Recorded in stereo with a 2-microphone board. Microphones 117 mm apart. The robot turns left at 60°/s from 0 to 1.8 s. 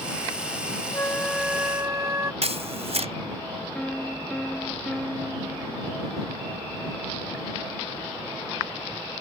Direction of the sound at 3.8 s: 10° left (ahead or behind).